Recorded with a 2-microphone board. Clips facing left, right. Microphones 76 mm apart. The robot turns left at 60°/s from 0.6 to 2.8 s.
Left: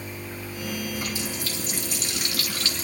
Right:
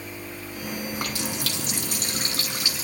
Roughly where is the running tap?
Ahead right.